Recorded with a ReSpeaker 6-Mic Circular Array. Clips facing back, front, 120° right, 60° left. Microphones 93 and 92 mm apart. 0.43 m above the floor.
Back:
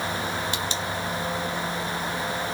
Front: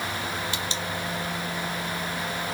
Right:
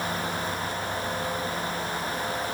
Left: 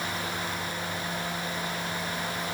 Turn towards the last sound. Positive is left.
No sound to turn to.